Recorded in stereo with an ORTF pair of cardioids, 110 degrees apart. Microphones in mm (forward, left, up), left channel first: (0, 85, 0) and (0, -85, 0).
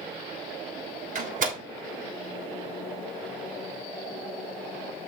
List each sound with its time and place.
1.1 s a door slam: 50° right, 3 m